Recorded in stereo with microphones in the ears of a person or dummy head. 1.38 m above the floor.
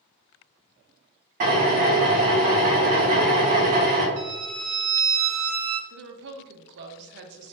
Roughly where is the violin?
Right.